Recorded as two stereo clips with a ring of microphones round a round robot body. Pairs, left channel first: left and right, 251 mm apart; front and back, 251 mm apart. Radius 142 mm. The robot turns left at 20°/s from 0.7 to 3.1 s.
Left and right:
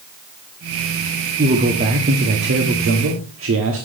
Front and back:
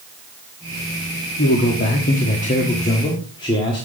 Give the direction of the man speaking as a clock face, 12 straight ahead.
1 o'clock.